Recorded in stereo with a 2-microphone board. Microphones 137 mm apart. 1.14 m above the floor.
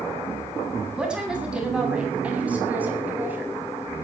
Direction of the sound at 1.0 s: 5° right (ahead or behind).